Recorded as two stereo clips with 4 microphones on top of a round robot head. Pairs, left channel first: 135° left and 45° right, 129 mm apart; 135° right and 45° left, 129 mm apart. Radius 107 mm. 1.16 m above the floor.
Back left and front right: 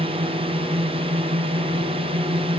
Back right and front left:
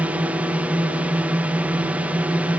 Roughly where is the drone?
Ahead right.